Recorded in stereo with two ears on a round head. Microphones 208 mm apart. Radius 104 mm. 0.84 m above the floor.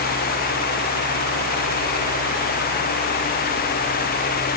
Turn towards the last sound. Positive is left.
No sound to turn to.